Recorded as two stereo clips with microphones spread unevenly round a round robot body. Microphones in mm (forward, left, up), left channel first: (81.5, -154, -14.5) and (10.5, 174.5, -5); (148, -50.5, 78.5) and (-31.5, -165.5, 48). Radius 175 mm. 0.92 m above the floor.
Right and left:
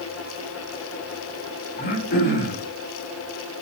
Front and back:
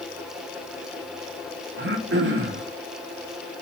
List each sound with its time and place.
1.8 s throat clearing: 140° right, 2 m